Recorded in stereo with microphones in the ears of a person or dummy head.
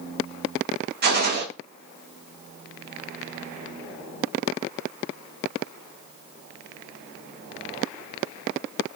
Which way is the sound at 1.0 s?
55° right (ahead or behind).